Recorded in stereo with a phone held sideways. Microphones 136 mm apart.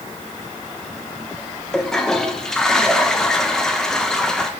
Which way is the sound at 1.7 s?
5° left (ahead or behind).